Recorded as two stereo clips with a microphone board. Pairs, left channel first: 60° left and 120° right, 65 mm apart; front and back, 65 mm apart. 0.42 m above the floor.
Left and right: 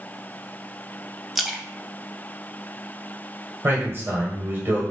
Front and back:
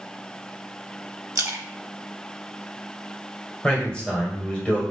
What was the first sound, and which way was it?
A splash, 155° left.